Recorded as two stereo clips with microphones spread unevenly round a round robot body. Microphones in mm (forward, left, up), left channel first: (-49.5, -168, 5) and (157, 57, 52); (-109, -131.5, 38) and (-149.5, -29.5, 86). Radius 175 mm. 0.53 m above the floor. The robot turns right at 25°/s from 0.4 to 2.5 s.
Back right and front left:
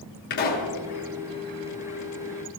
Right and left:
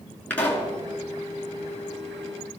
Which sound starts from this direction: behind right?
A pop, at 0.3 s.